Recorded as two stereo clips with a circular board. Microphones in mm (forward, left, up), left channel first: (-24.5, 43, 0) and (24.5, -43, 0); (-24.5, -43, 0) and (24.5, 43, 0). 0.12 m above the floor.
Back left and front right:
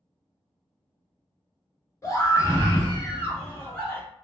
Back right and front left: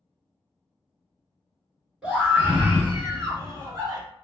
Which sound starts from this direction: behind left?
A scream, at 2.0 s.